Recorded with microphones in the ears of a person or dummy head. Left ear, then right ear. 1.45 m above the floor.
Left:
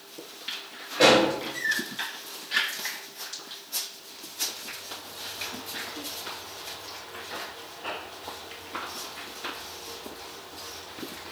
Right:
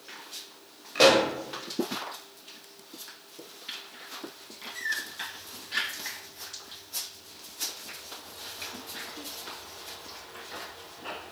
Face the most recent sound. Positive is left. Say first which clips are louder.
# left 1 dB
turn(degrees=-60)  # may be behind; listen again after turning